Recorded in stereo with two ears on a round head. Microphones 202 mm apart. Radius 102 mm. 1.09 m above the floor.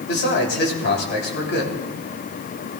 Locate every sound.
0.1 s a man speaking: 55° left (ahead or behind), 3 m